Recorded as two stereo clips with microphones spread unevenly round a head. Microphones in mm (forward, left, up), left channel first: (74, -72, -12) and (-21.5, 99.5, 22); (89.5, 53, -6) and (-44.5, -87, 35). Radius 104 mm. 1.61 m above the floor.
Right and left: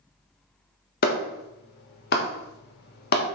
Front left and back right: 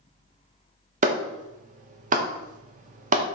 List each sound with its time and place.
1.0 s a clap: 105° right, 1.1 m